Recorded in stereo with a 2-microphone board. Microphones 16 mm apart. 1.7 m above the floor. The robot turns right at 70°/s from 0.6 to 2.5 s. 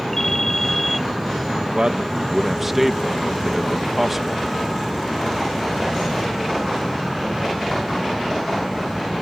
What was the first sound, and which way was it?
A ringtone, 150° left.